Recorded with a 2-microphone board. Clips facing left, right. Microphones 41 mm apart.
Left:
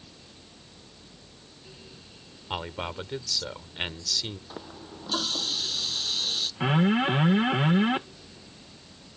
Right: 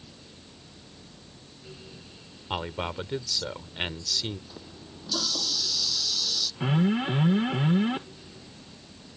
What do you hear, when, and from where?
2.5 s a man speaking: 5° right (ahead or behind)
4.5 s a running tap: 35° left (ahead or behind)
6.6 s an alarm: 35° left (ahead or behind)